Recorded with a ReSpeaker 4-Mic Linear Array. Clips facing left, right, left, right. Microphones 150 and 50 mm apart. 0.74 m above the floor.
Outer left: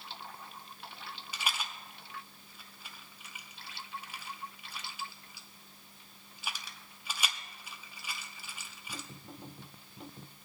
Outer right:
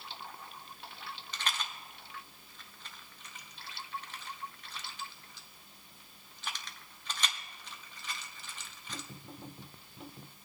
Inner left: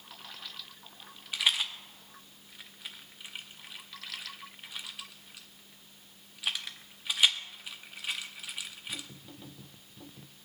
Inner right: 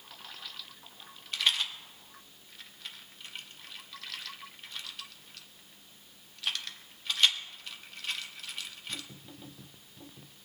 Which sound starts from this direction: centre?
A rattle, at 1.3 s.